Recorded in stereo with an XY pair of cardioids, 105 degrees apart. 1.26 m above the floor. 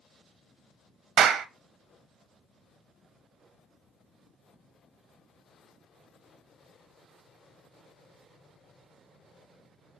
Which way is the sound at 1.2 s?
65° right.